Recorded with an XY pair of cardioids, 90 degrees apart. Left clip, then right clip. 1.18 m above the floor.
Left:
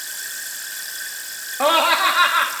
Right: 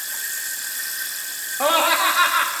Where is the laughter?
30° left, 1.8 m.